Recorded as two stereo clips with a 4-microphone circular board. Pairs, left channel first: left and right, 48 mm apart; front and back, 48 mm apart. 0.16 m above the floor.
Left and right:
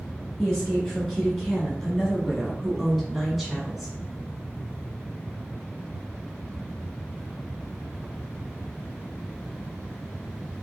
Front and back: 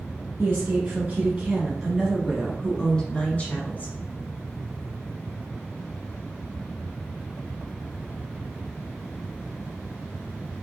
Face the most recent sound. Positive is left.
turn(degrees=-5)